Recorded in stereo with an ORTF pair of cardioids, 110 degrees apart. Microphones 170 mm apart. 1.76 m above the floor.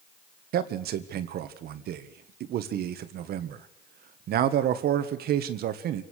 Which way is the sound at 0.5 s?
65° right.